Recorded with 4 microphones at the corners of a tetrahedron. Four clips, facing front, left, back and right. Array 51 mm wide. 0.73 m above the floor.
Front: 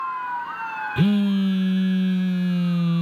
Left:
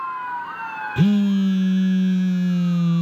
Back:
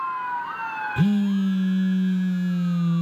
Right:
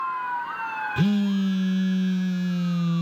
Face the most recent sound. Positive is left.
turn(degrees=20)